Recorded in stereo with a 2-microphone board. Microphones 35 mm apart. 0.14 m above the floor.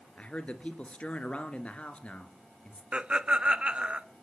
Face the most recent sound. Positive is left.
turn(degrees=-30)  # may be behind; listen again after turning